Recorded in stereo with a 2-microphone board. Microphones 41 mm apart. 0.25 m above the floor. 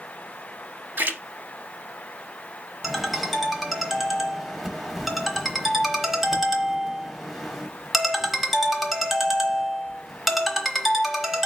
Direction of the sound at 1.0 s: 60° right (ahead or behind).